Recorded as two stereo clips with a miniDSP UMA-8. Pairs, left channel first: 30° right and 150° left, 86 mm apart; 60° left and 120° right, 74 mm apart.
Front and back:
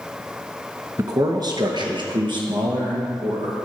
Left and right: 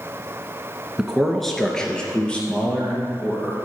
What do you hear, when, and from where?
1.0 s a man speaking: 165° left, 1.2 m; by 3.6 s 130° left, 4 m